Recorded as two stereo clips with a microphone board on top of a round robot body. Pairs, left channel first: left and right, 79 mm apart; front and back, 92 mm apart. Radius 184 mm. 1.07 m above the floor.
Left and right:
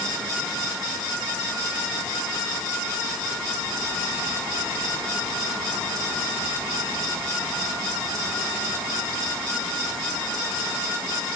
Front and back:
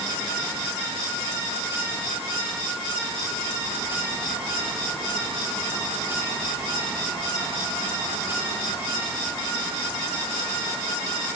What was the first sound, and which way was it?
Only background noise.